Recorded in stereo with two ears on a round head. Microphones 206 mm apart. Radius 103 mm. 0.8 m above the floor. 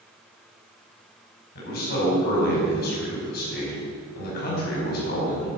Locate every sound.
1.6 s a man speaking: 45° left (ahead or behind), 5 m